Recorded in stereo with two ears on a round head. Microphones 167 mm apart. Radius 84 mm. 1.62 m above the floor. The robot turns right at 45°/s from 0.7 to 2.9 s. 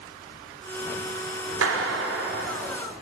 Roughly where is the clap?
Right.